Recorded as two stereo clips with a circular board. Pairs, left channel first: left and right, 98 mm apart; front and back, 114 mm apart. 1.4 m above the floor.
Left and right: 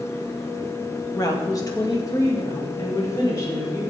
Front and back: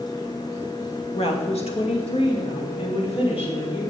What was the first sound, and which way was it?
A woman speaking, 35° left.